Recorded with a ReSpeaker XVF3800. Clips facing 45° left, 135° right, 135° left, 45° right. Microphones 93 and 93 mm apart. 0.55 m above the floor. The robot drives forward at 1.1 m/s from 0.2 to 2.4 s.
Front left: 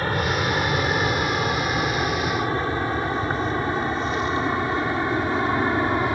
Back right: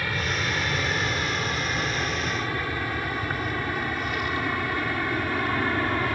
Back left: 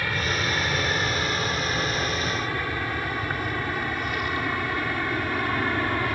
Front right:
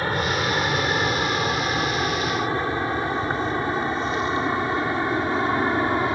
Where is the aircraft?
5° left; by 6.2 s 5° right.